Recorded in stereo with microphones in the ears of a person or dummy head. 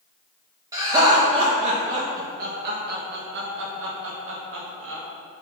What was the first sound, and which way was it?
Laughter, 20° right (ahead or behind).